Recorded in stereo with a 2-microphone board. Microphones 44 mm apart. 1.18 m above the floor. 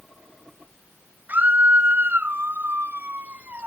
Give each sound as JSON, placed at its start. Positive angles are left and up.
{"t": 1.3, "sound": "a scream", "side_deg": -45}